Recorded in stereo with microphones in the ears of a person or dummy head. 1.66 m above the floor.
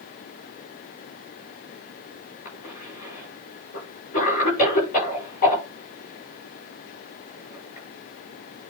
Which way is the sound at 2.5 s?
40° left (ahead or behind).